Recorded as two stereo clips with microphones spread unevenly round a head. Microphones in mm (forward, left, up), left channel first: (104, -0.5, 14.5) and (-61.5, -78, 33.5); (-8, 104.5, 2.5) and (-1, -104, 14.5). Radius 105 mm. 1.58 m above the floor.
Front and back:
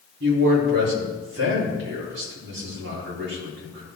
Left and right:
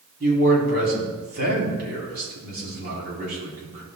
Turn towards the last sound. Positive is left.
turn(degrees=-135)